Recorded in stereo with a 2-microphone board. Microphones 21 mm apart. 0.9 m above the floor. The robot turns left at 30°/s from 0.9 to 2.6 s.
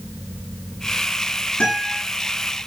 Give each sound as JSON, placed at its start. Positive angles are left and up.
{"t": 1.6, "sound": "a guitar", "side_deg": 55, "distance_m": 9.5}